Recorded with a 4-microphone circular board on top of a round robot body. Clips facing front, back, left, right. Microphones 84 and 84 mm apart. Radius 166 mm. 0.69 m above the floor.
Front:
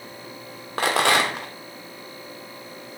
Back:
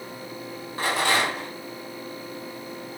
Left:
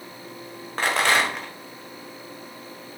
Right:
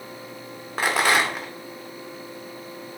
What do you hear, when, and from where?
0.8 s a rattle: 5° right, 0.6 m